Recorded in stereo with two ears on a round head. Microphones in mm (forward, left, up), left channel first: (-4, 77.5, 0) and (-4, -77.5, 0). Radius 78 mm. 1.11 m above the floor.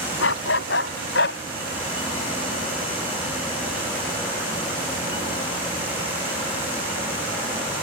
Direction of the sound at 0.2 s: 80° left.